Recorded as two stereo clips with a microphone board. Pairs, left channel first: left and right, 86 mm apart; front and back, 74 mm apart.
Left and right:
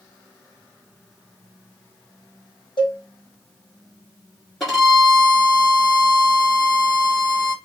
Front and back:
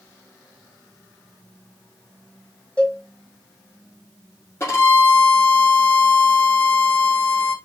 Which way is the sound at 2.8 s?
75° left.